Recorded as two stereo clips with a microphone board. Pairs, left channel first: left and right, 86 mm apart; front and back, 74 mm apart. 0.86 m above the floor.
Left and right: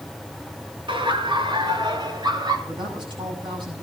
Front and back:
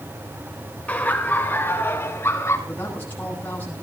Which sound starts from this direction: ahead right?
A woman speaking, at 2.7 s.